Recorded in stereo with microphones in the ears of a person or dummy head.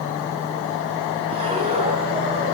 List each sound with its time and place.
1.3 s breathing: 30° right (ahead or behind), 3.5 m